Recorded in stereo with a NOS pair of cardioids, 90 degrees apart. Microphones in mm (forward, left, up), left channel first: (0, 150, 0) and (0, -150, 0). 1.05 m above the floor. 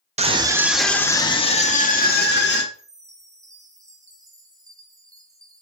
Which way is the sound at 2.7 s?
10° right.